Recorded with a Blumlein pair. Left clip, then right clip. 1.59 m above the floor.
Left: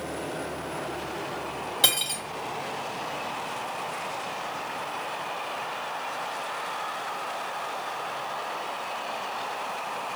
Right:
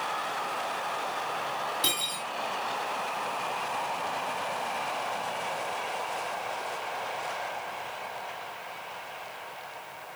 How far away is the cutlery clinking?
About 2.0 m.